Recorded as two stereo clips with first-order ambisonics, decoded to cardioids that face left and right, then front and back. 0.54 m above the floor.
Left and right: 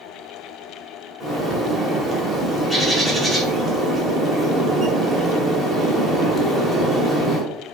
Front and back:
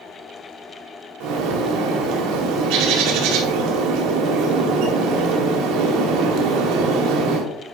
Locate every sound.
1.2 s a bird: 175° right, 2.0 m